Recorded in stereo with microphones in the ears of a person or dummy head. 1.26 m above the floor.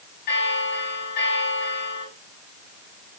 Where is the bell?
50° left (ahead or behind), 3.5 m.